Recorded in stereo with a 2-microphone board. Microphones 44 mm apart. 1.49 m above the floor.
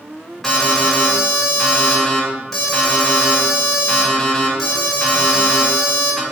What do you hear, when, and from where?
0.4 s an alarm: 5° left (ahead or behind), 2.5 m